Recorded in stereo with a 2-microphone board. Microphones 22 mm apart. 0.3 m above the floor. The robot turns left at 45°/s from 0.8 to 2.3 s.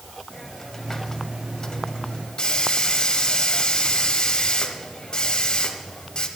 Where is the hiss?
150° left, 1.0 m; by 6.3 s 85° left, 1.0 m.